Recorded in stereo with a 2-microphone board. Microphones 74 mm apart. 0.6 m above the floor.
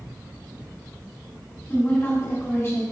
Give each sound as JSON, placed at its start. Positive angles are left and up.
{"t": 1.7, "sound": "a woman speaking", "side_deg": 30, "distance_m": 1.7}